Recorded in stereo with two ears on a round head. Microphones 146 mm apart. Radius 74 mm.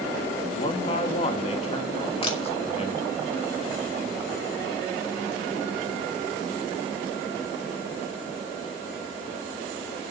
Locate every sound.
0.5 s a man speaking: 40° left (ahead or behind), 2.0 m
2.2 s a camera shutter: 35° left (ahead or behind), 3 m